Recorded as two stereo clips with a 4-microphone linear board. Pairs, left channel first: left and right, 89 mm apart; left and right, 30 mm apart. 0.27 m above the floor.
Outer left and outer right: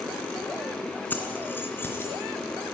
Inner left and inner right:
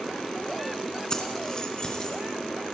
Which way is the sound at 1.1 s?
20° left (ahead or behind).